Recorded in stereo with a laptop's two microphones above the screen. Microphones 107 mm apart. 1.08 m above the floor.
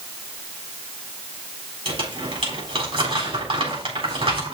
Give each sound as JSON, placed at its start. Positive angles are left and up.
{"t": 1.9, "sound": "crumpling", "side_deg": -60, "distance_m": 4.0}